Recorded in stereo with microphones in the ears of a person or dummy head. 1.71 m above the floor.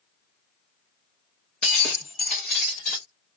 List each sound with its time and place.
1.6 s breaking glass: centre (ahead or behind), 1.0 m